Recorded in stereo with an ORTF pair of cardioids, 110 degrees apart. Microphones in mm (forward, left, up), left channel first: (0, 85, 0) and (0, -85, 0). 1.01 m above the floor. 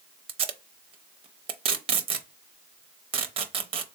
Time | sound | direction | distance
0.3 | tape being pulled | 35° right | 0.7 m